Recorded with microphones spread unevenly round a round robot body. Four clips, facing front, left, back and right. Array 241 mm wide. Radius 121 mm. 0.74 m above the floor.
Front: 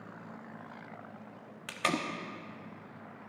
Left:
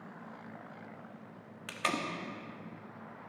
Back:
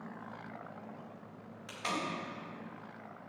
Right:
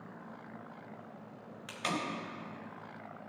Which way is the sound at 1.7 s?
20° left.